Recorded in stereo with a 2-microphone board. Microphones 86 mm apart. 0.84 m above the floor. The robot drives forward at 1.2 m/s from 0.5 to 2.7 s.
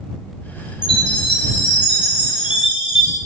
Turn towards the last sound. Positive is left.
turn(degrees=70)  # may be behind; listen again after turning